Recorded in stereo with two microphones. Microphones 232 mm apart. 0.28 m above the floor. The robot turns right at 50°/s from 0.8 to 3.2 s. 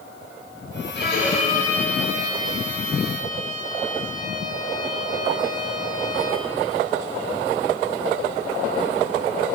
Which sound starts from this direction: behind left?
A violin, at 0.9 s.